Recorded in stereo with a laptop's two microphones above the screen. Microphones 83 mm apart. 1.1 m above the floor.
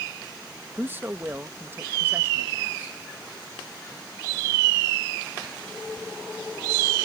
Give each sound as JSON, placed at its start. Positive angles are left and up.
{"t": 0.8, "sound": "a man speaking", "side_deg": -25}